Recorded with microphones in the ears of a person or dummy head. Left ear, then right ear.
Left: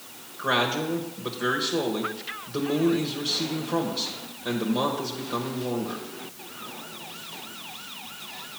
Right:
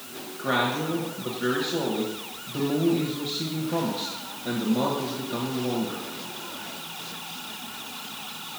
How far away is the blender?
I don't hear a blender.